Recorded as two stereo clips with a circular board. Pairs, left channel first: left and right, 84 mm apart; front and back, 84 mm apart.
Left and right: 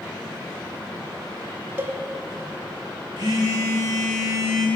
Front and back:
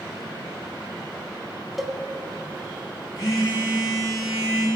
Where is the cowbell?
95° right, 1.1 m.